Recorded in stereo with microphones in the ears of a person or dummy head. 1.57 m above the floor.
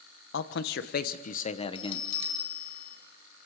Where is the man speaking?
75° left (ahead or behind), 1.3 m; by 2.1 s 25° left (ahead or behind), 1.2 m.